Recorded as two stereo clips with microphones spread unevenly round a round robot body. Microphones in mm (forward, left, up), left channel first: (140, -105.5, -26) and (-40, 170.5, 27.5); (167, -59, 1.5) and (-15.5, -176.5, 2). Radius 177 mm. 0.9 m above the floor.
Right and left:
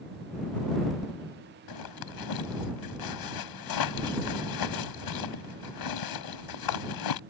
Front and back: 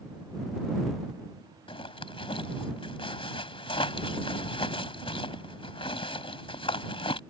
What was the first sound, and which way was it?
A zipper, 35° right.